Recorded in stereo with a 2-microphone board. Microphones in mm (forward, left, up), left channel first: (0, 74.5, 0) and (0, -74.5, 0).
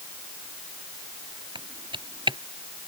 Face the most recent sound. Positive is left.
turn(degrees=-35)  # may be behind; listen again after turning